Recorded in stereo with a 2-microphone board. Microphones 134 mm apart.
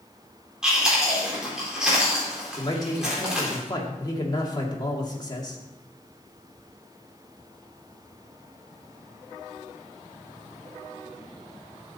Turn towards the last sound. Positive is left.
turn(degrees=30)  # may be behind; listen again after turning